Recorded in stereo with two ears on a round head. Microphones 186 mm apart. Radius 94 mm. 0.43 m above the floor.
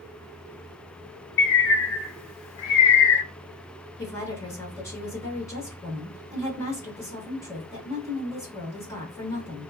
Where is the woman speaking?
15° left (ahead or behind), 1.0 m.